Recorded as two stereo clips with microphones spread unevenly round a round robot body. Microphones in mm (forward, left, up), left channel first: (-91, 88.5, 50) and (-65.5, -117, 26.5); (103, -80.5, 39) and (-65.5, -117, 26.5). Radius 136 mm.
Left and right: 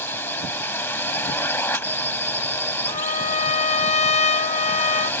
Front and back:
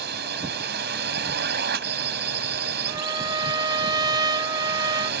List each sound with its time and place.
0.0 s a drone: 175° left
2.9 s a trumpet: 145° left